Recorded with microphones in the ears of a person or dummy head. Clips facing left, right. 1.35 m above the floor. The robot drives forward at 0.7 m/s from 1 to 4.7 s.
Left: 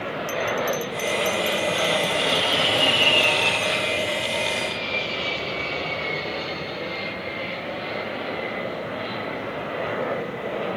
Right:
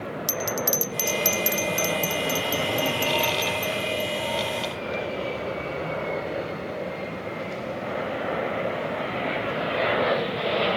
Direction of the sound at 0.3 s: 85° right.